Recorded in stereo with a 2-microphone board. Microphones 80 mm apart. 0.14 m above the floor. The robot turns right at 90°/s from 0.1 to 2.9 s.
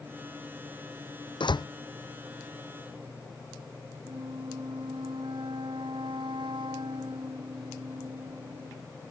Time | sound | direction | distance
1.4 | a door slam | 80° left | ?
4.0 | a flute | 80° right | ?